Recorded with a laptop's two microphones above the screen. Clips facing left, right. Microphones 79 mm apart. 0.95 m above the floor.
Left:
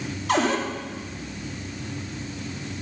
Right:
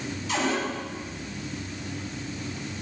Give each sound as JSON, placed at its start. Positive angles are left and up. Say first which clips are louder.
{"t": 0.3, "sound": "a cupboard door", "louder": "left 5 dB", "side_deg": 60, "distance_m": 2.5}